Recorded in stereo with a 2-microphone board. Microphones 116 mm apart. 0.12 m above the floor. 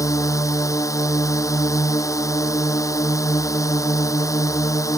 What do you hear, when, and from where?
0.0 s a drone: 25° left (ahead or behind)